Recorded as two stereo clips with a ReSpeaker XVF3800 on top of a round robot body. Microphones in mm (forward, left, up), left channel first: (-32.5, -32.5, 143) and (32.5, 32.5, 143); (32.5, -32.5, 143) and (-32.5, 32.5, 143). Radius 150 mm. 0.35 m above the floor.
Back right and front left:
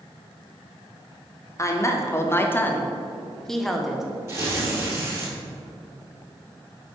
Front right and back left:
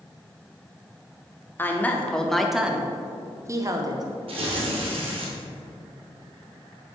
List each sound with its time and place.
1.6 s a woman speaking: 100° right, 1.1 m; by 4.0 s 130° left, 1.1 m
4.3 s tearing paper: 110° left, 1.8 m